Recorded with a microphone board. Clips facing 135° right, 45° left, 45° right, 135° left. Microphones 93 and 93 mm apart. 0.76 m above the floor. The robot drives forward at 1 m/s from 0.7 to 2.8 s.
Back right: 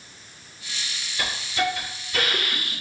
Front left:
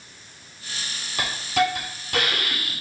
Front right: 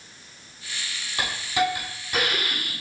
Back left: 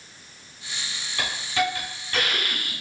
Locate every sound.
1.2 s a hiss: 25° left, 3.5 m; by 2.7 s 40° left, 2.5 m